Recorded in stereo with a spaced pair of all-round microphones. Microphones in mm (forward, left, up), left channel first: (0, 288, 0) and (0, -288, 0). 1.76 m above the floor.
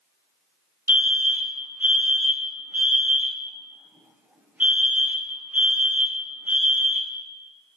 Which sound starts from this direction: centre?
A fire alarm, at 0.9 s.